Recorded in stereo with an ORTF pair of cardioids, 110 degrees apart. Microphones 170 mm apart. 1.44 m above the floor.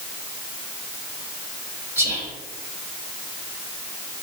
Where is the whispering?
15° right, 1.5 m.